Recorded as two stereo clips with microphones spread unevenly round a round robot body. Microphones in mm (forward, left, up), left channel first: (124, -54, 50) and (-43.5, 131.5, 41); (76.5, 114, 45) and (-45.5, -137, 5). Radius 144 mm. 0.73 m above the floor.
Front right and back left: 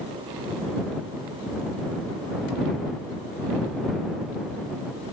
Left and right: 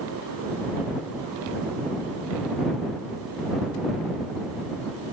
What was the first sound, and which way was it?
Only background noise.